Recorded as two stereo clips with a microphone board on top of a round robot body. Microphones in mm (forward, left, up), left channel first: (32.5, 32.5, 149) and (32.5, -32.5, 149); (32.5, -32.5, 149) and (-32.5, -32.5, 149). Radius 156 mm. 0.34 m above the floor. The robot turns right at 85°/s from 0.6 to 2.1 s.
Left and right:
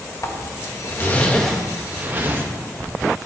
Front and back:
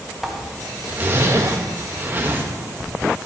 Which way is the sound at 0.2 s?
100° left.